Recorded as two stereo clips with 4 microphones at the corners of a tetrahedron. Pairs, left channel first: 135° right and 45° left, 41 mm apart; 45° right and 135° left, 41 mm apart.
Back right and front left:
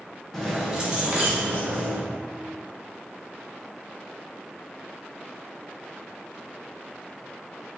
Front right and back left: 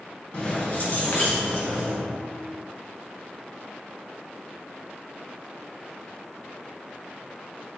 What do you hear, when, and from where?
0.3 s keys jangling: 55° right, 0.9 m; by 2.0 s straight ahead, 2.0 m